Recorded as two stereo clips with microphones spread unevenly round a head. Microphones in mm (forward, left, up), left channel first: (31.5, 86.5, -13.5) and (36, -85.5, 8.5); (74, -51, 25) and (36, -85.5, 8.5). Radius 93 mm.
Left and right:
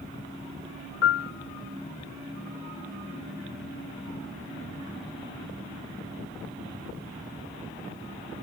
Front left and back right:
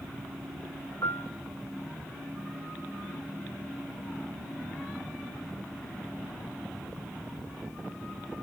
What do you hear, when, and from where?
1.0 s a piano: 115° left, 0.6 m